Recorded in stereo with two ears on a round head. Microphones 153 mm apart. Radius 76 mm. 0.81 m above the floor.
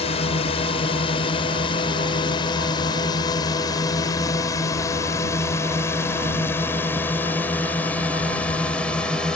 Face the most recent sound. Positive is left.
turn(degrees=5)  # may be behind; listen again after turning